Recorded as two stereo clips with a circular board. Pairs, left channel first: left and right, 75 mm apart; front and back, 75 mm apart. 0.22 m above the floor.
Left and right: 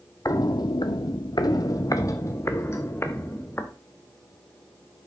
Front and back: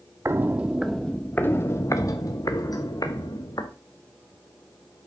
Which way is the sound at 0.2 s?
130° left.